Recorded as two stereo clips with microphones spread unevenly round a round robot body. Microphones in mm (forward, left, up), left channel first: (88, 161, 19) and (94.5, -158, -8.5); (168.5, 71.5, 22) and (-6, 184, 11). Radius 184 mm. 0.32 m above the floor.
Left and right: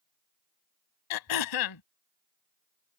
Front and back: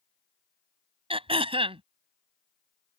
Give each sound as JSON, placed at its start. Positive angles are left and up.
{"t": 1.1, "sound": "throat clearing", "azimuth_deg": 85}